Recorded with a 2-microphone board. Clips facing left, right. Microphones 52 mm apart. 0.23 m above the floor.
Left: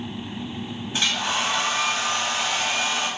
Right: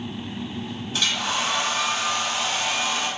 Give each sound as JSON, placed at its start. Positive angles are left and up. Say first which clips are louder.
{"t": 0.9, "sound": "a hair dryer", "louder": "left 1 dB", "side_deg": 25, "distance_m": 1.6}